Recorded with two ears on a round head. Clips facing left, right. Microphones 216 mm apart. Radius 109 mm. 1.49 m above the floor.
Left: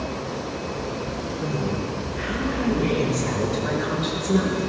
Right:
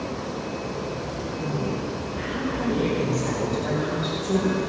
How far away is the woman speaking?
About 5 m.